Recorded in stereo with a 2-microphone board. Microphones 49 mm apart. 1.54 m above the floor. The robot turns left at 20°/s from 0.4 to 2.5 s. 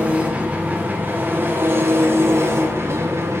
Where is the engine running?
35° right, 0.8 m; by 3.4 s 75° right, 0.8 m.